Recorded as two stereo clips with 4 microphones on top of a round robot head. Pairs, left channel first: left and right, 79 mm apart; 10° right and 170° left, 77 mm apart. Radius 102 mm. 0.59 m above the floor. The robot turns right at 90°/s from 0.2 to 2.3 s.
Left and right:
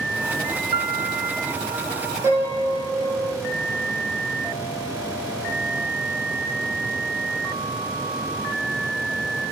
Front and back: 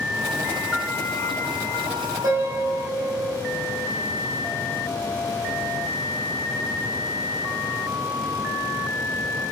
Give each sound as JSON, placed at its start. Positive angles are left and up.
{"t": 0.7, "sound": "a piano", "azimuth_deg": -100, "distance_m": 0.8}
{"t": 2.2, "sound": "a piano", "azimuth_deg": -145, "distance_m": 4.5}